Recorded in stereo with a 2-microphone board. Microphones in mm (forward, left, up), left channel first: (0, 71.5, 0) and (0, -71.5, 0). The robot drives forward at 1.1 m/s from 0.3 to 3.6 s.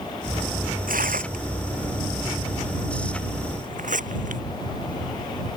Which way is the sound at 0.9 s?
75° right (ahead or behind).